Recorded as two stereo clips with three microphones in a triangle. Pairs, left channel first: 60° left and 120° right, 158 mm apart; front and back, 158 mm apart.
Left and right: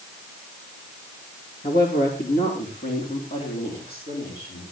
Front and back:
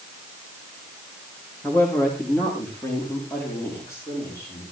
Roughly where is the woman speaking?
Left.